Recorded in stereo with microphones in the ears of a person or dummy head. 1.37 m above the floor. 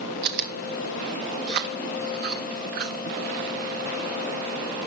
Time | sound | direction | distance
0.2 | chewing | 55° right (ahead or behind) | 1.4 m